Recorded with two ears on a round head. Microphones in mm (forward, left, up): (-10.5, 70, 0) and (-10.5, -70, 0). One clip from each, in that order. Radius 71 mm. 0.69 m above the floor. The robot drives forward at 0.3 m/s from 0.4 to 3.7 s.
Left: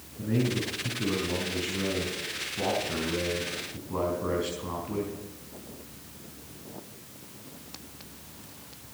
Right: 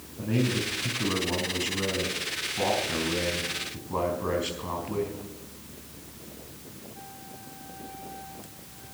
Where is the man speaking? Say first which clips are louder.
Right 1 dB; 35° right (ahead or behind), 5.5 m; by 5.2 s 30° right (ahead or behind), 6 m.